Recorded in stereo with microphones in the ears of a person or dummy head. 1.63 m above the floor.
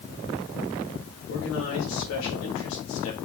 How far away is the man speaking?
About 3.5 m.